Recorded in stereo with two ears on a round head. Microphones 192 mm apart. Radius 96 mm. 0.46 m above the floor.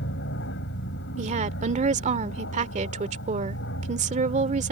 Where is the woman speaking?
35° right (ahead or behind).